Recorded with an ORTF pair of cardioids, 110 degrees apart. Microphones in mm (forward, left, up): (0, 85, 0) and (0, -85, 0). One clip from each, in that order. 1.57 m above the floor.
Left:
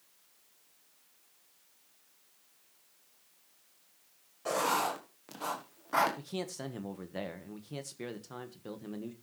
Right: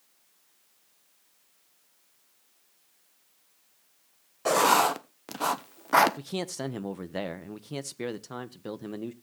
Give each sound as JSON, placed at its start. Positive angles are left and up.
{"t": 4.5, "sound": "writing", "azimuth_deg": -50, "distance_m": 1.1}
{"t": 6.2, "sound": "a man speaking", "azimuth_deg": -35, "distance_m": 1.0}